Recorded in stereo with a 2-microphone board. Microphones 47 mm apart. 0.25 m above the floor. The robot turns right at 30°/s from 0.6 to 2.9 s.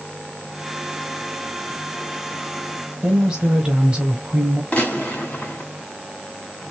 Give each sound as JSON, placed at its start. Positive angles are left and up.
{"t": 3.0, "sound": "a woman speaking", "side_deg": -20, "distance_m": 0.9}
{"t": 4.7, "sound": "a gunshot", "side_deg": 35, "distance_m": 1.5}